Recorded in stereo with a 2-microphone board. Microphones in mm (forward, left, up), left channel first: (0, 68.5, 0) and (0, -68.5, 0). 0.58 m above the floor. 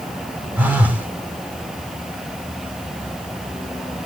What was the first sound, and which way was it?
A phone buzzing, 15° right (ahead or behind).